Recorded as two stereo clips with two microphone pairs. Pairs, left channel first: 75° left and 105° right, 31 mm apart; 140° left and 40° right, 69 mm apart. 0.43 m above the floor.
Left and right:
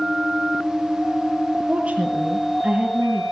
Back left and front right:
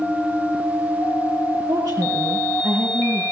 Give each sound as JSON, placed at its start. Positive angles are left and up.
{"t": 1.7, "sound": "a woman speaking", "azimuth_deg": -55, "distance_m": 8.0}